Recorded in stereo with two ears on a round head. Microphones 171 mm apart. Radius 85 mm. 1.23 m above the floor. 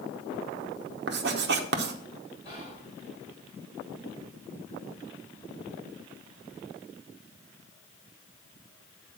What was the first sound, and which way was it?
Writing, 60° right (ahead or behind).